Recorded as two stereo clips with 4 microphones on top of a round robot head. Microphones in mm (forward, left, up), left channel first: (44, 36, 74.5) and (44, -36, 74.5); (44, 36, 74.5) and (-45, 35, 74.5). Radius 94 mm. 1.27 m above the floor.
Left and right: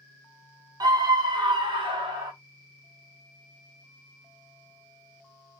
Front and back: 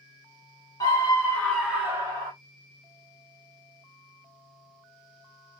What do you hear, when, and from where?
0.8 s a scream: 55° right, 1.2 m; by 2.3 s 125° right, 0.9 m